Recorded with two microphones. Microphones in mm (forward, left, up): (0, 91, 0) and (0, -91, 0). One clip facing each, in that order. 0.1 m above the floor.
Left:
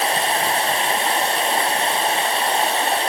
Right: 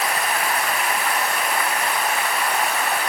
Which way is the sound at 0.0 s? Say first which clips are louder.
Left 3 dB; 30° left (ahead or behind).